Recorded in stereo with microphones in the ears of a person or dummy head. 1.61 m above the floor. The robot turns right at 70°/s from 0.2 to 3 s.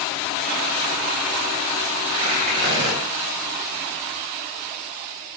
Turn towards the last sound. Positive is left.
turn(degrees=-95)